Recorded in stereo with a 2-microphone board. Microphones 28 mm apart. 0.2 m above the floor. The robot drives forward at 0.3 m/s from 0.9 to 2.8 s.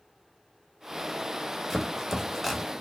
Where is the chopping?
5° left (ahead or behind), 0.8 m.